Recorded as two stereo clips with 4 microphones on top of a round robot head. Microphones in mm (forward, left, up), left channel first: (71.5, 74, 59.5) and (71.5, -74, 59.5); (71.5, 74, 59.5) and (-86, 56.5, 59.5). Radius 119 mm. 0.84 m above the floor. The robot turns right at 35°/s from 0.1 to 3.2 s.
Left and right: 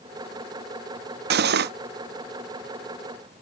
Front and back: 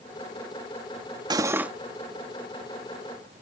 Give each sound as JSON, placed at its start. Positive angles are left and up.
{"t": 1.3, "sound": "cutlery clinking", "azimuth_deg": -105}